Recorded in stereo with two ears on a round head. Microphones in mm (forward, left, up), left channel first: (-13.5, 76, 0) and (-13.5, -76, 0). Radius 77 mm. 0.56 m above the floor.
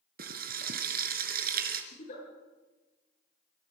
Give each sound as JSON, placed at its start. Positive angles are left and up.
{"t": 0.2, "sound": "frying", "side_deg": -60, "distance_m": 2.5}
{"t": 1.9, "sound": "a giggle", "side_deg": 50, "distance_m": 9.0}